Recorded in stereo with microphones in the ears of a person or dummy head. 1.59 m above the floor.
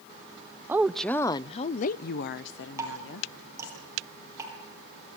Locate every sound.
0.7 s a woman speaking: 10° right (ahead or behind), 0.6 m; by 3.8 s 80° left, 1.5 m
2.8 s dripping: 15° right (ahead or behind), 7 m